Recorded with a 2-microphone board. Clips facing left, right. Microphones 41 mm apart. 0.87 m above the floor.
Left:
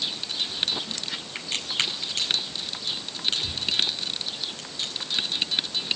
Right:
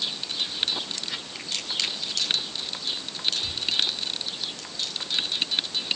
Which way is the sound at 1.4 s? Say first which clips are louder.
Left 4 dB; 35° left (ahead or behind).